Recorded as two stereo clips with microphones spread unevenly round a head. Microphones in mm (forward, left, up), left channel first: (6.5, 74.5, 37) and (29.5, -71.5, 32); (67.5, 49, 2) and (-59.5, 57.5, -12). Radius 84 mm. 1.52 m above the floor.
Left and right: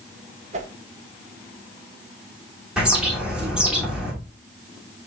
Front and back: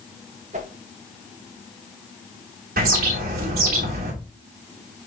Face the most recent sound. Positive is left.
turn(degrees=-165)